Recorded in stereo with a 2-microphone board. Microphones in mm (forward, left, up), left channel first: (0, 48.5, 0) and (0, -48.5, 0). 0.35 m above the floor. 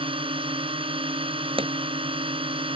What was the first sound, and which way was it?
A drone, 70° right (ahead or behind).